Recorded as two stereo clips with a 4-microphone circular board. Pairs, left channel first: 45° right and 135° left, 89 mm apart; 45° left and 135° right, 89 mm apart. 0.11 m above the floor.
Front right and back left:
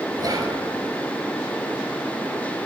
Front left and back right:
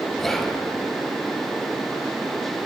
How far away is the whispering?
About 1.5 m.